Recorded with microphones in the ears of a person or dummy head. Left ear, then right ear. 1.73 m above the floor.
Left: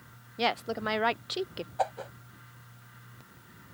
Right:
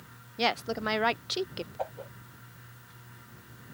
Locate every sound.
0.4 s a woman speaking: centre (ahead or behind)
1.8 s a whoosh: 45° left (ahead or behind)